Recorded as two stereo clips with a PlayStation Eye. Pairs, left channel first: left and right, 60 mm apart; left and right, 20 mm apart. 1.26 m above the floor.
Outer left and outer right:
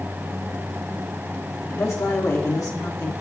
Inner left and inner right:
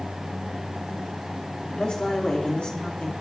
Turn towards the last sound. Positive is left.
turn(degrees=75)  # may be behind; listen again after turning